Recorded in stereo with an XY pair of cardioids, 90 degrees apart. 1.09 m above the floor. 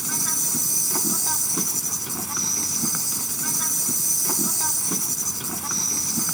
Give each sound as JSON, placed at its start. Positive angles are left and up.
{"t": 0.0, "sound": "an insect", "azimuth_deg": -10}